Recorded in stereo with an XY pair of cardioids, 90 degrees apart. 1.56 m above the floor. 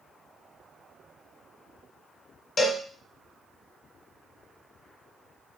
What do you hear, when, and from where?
2.6 s a cowbell: 40° left, 1.4 m